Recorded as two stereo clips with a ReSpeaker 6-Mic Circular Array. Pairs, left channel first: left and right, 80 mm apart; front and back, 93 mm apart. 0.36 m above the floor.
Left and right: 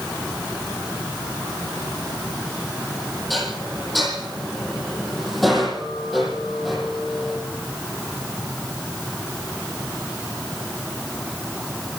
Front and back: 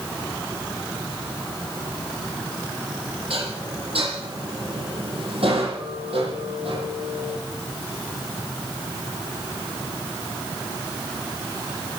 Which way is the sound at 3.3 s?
Straight behind.